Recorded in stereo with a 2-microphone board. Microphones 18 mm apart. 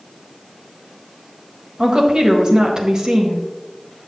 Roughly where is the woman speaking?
Right.